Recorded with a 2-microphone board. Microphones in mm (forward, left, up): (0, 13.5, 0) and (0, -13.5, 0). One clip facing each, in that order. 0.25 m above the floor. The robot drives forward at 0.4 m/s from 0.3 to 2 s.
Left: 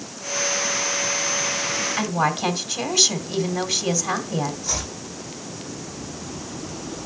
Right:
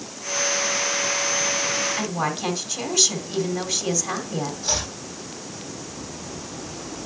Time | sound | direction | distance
2.0 | a woman speaking | 15° left (ahead or behind) | 1.5 m
4.6 | chopping | 60° right (ahead or behind) | 5.5 m